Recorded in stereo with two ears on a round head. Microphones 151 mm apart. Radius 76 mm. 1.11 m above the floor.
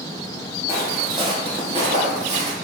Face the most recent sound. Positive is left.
turn(degrees=-45)  # may be behind; listen again after turning